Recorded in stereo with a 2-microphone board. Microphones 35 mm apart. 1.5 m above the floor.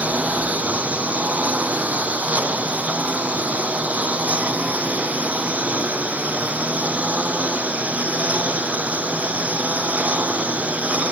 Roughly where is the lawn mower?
Right.